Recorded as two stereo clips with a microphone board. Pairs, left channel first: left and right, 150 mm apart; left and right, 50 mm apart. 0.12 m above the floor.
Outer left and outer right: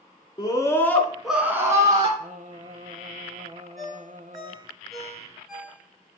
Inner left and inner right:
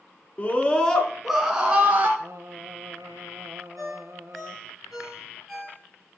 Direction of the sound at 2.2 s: 60° right (ahead or behind).